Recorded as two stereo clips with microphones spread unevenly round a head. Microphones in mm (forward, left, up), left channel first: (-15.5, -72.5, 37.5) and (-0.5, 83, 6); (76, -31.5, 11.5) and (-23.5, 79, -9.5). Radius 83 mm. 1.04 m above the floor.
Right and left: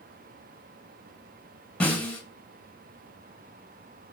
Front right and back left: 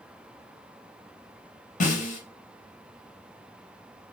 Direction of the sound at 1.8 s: 15° right.